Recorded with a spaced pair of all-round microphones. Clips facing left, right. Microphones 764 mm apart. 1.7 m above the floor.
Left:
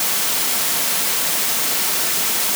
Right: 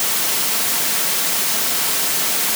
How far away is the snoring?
I don't hear snoring.